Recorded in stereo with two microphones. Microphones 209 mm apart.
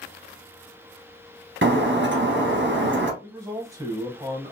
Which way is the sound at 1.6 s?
60° right (ahead or behind).